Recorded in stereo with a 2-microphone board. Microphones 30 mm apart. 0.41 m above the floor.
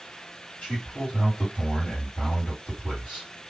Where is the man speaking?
45° left (ahead or behind), 1.9 m.